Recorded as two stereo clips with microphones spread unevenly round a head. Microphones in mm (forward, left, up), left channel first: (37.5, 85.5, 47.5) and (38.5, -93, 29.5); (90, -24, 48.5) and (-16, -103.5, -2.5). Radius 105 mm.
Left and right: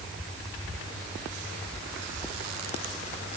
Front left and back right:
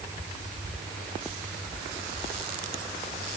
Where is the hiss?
No hiss in this recording.